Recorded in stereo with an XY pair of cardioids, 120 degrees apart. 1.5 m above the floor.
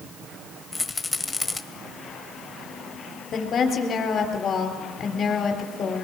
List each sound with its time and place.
0.7 s a rattle: 15° left, 1.2 m
3.3 s a woman speaking: 45° left, 3.5 m